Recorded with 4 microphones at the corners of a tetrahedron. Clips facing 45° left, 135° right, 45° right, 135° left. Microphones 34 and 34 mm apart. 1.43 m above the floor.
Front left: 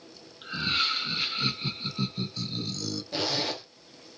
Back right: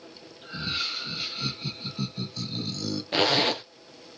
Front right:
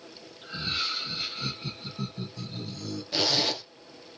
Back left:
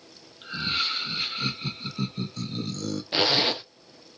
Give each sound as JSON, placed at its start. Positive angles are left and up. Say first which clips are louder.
{"t": 0.4, "sound": "laughter", "louder": "front left 4 dB, back left 3 dB", "azimuth_deg": 85, "distance_m": 1.6}
{"t": 3.1, "sound": "a zipper", "louder": "back right 8 dB, back left 3 dB", "azimuth_deg": -165, "distance_m": 0.5}